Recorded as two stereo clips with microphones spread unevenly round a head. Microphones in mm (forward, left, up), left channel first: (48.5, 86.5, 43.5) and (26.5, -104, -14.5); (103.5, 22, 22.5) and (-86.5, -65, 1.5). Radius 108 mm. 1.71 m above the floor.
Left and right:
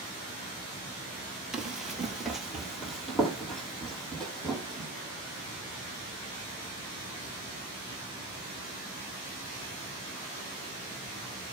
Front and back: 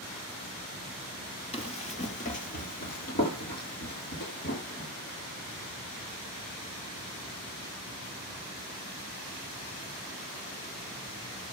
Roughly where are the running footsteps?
Ahead.